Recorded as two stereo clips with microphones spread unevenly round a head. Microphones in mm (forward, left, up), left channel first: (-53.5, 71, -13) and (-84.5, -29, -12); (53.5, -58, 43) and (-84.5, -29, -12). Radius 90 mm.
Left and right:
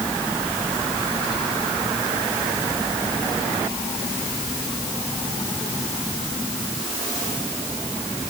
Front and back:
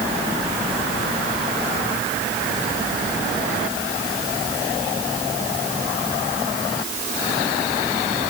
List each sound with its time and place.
Only background noise.